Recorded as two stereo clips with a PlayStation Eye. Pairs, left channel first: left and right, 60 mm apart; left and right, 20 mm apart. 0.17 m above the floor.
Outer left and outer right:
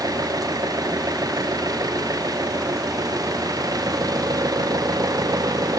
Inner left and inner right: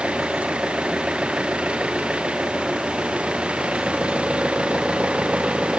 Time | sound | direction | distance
0.0 | an engine running | 85° right | ?